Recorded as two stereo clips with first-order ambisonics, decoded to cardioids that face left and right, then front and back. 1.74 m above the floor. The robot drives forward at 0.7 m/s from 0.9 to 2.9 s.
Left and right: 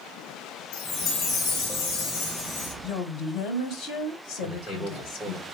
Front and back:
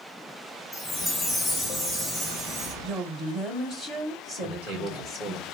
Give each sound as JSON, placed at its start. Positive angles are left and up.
{"t": 0.7, "sound": "a chime", "azimuth_deg": 75, "distance_m": 2.5}
{"t": 2.8, "sound": "a woman speaking", "azimuth_deg": 120, "distance_m": 1.2}
{"t": 4.4, "sound": "a man speaking", "azimuth_deg": 170, "distance_m": 3.0}